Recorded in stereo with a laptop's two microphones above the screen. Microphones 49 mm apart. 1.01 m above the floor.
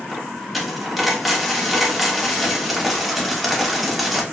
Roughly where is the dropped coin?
Centre.